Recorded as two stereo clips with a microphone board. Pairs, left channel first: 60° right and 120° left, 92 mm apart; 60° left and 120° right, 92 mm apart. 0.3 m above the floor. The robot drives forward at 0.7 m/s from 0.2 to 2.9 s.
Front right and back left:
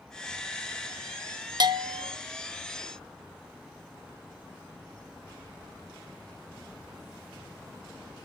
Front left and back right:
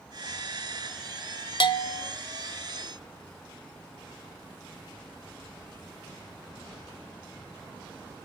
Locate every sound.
1.6 s a bell: 85° left, 0.7 m; by 2.1 s 110° left, 0.7 m